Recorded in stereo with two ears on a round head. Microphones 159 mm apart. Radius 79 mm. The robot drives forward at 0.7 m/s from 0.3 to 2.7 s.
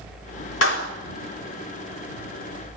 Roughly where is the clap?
Left.